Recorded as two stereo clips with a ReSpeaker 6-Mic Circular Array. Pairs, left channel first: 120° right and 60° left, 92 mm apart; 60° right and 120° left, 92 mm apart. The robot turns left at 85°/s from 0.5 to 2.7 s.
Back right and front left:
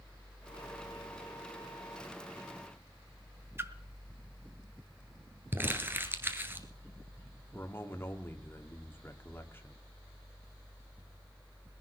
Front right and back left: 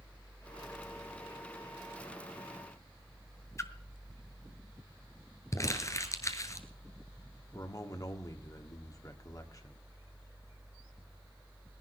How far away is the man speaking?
About 1.6 m.